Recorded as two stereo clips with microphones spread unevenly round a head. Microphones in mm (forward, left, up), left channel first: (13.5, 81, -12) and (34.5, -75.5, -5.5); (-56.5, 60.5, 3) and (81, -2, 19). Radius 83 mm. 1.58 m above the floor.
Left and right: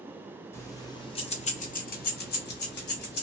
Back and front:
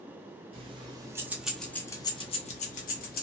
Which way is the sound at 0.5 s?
25° left.